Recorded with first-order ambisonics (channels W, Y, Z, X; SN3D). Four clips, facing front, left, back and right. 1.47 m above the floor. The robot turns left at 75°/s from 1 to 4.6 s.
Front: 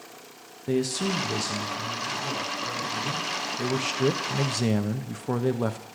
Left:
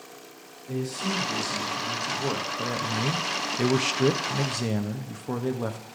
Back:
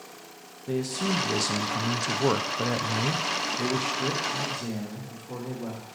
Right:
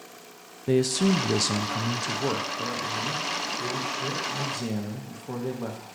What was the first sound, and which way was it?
A man speaking, 75° right.